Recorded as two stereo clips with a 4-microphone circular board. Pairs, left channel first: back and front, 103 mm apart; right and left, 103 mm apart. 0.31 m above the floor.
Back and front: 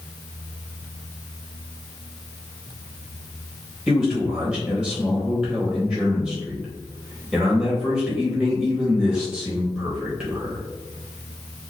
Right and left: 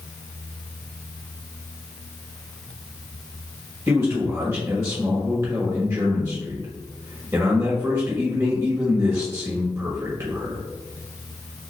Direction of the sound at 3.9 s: 75° left.